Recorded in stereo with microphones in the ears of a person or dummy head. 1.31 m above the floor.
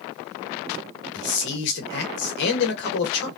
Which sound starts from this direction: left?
A man speaking, at 1.1 s.